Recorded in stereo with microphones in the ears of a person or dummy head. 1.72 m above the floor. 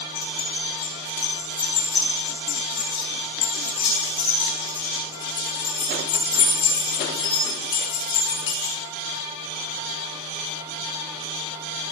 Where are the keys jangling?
30° left (ahead or behind), 2.0 m.